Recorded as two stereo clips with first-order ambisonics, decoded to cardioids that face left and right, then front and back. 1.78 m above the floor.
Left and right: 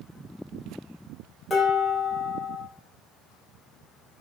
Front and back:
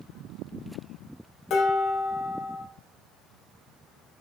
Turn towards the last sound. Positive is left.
turn(degrees=15)